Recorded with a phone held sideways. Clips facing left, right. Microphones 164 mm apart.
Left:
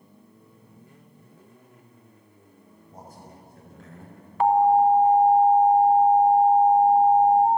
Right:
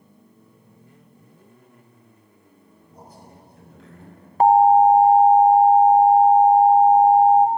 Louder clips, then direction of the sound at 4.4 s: Right 5 dB; 40° right (ahead or behind).